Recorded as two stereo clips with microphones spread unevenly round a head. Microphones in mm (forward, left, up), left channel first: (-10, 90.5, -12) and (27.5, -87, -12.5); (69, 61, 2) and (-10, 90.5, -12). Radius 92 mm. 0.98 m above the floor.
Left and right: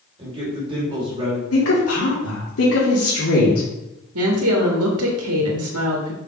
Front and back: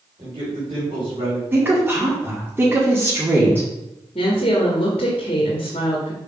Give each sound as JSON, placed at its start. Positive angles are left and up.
{"t": 0.2, "sound": "a man speaking", "azimuth_deg": -140, "distance_m": 3.5}
{"t": 1.5, "sound": "a woman speaking", "azimuth_deg": 95, "distance_m": 2.5}
{"t": 4.2, "sound": "a woman speaking", "azimuth_deg": -80, "distance_m": 1.6}